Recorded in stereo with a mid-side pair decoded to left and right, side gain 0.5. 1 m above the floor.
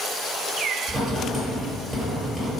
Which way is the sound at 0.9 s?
25° right.